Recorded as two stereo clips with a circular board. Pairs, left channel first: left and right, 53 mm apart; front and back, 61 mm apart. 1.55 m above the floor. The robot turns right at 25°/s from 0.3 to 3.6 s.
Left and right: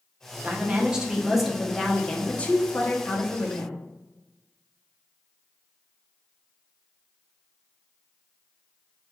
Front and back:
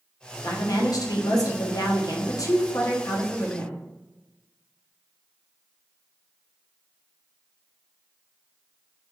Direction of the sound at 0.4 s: 25° right.